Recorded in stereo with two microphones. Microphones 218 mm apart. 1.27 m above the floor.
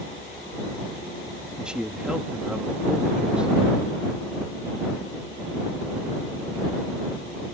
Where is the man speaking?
5° right (ahead or behind).